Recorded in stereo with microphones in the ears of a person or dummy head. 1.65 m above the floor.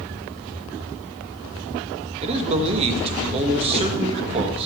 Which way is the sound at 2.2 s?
35° right (ahead or behind).